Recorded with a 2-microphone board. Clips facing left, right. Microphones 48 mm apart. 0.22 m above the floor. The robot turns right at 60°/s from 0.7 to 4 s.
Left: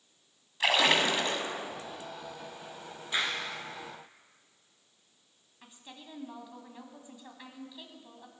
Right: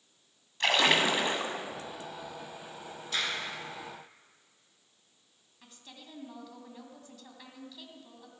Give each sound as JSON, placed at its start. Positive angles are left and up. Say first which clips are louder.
{"t": 0.6, "sound": "a splash", "louder": "even", "azimuth_deg": 170, "distance_m": 1.4}
{"t": 3.1, "sound": "a clap", "louder": "left 2 dB", "side_deg": 20, "distance_m": 2.0}
{"t": 5.6, "sound": "a woman speaking", "louder": "left 2 dB", "side_deg": 20, "distance_m": 1.7}